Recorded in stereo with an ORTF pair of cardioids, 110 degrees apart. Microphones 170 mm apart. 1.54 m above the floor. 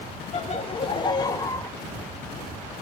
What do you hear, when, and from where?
0.3 s laughter: 40° left, 1.3 m; by 1.7 s 15° left, 1.6 m